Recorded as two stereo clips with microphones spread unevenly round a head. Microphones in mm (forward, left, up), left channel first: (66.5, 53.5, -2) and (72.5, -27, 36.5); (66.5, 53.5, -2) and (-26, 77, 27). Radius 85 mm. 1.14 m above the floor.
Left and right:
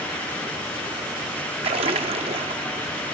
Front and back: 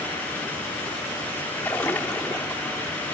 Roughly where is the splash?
Right.